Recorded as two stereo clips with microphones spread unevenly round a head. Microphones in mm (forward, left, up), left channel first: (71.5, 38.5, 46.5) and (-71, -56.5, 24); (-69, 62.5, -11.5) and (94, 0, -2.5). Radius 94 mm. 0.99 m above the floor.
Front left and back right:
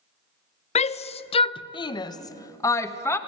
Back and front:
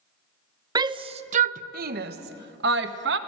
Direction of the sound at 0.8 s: 30° left.